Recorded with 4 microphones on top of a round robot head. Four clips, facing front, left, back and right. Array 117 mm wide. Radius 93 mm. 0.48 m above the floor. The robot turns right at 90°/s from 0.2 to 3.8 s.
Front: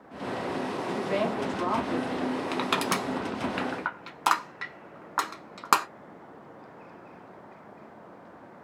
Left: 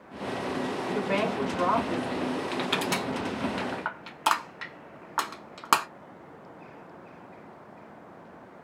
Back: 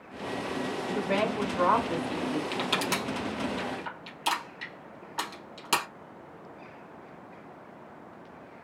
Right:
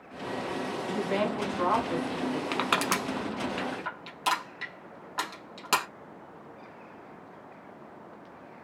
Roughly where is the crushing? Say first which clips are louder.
Right 1 dB, front 2 dB; right.